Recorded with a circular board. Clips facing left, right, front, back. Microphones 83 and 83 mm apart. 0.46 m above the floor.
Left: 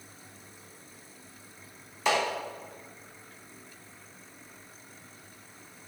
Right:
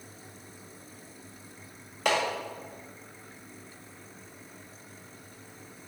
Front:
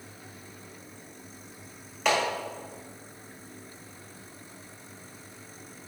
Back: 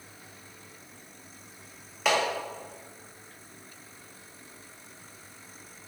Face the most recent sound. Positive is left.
turn(degrees=-90)